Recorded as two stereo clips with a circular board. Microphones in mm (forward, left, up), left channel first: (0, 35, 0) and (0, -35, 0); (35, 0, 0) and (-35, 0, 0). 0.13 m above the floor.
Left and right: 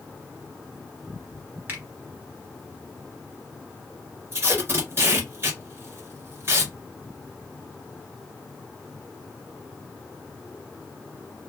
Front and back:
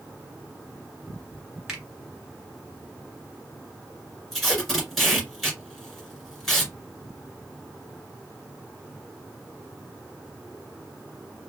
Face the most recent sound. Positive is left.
turn(degrees=-85)